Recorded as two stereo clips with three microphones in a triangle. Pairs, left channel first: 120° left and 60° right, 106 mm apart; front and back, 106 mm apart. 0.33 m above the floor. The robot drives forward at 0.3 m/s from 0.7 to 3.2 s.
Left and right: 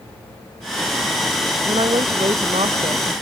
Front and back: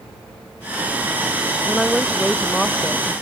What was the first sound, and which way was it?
A woman speaking, 85° right.